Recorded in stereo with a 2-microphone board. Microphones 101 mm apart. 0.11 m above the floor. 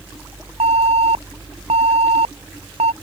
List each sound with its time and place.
0.6 s an alarm: 80° right